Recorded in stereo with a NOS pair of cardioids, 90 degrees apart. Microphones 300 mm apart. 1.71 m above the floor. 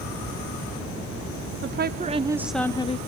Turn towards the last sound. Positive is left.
turn(degrees=25)